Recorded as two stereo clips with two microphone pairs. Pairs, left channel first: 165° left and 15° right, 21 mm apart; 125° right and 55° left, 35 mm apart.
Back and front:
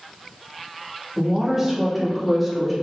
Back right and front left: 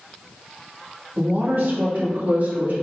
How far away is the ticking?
I don't hear ticking.